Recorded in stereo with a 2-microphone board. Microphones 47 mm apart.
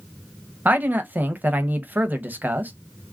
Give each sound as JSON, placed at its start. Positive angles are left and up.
{"t": 0.7, "sound": "a man speaking", "side_deg": -40, "distance_m": 0.7}